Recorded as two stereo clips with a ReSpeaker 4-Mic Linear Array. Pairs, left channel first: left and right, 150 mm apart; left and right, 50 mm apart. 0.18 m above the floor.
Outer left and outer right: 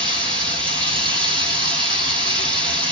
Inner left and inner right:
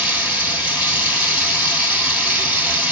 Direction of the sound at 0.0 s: 35° right (ahead or behind).